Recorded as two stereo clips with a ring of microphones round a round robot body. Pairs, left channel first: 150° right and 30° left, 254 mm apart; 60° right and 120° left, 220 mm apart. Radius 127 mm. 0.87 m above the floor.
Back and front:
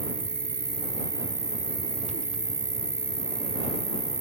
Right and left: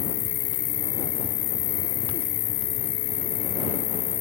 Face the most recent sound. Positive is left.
turn(degrees=-45)